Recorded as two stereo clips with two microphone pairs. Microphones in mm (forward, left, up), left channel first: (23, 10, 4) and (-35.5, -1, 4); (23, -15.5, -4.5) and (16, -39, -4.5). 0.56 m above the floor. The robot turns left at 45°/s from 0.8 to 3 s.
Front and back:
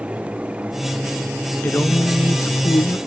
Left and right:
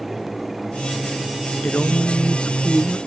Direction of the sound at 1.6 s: 65° left.